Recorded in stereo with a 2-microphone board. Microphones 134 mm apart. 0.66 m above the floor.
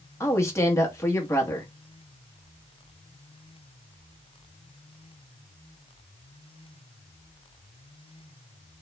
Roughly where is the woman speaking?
Left.